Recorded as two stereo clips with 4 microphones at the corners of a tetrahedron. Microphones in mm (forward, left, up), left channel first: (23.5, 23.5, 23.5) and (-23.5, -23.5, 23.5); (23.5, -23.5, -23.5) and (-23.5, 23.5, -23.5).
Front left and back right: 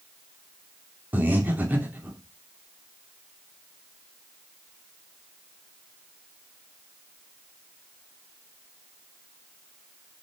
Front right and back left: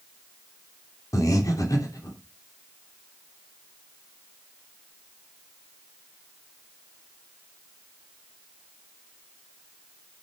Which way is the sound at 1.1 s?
75° right.